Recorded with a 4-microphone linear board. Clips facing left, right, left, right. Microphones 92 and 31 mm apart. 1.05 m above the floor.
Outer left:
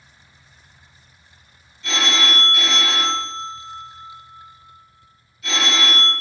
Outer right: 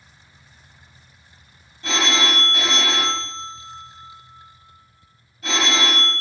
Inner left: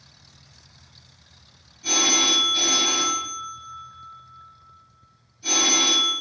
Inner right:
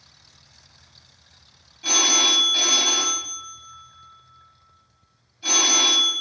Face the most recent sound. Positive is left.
turn(degrees=-40)  # may be behind; listen again after turning